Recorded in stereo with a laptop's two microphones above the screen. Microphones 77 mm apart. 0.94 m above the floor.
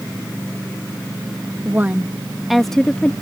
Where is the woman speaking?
30° right (ahead or behind); by 3.1 s 15° left (ahead or behind).